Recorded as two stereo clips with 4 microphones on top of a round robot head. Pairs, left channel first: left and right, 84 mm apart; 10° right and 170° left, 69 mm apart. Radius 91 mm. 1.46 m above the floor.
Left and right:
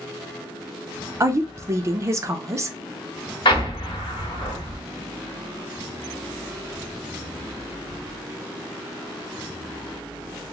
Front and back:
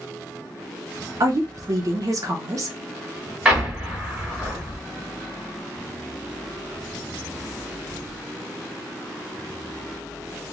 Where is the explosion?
100° left, 1.3 m.